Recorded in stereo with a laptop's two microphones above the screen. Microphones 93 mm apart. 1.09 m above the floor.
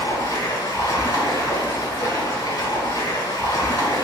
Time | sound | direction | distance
0.0 | running water | 35° left (ahead or behind) | 1.0 m